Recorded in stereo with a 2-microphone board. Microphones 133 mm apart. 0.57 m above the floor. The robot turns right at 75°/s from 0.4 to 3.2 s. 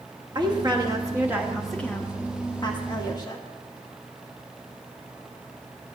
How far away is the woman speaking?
About 1.0 m.